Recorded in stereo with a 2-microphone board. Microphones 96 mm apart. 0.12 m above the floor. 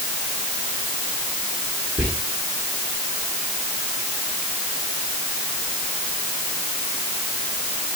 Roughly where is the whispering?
Right.